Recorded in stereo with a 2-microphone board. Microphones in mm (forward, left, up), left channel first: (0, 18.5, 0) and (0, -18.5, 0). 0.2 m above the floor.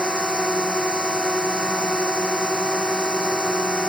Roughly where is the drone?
Right.